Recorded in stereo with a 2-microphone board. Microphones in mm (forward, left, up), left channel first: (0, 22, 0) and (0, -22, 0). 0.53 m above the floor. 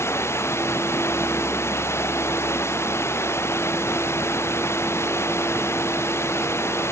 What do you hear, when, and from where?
0.0 s running water: 85° left